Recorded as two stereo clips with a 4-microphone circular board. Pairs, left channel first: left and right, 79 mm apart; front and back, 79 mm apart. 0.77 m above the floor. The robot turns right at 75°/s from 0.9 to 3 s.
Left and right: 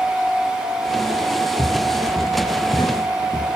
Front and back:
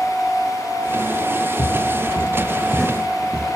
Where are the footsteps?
20° right, 4 m; by 3.5 s 115° left, 2.5 m.